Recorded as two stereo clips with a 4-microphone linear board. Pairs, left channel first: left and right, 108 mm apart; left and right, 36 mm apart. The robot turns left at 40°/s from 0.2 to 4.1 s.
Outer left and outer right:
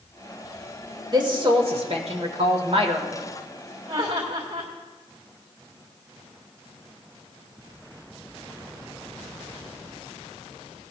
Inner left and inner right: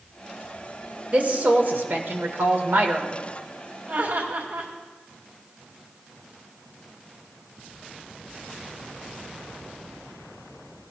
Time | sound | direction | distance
1.1 | a woman speaking | 45° right | 1.6 m
3.9 | laughter | 75° right (ahead or behind) | 1.9 m